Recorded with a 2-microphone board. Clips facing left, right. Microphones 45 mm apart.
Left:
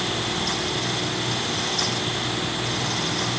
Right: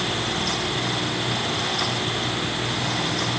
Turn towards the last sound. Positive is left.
No sound to turn to.